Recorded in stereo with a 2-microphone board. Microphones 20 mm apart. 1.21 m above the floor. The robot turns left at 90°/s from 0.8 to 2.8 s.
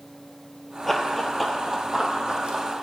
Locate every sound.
0.9 s running footsteps: 20° left (ahead or behind), 1.3 m; by 2.6 s 60° right (ahead or behind), 2 m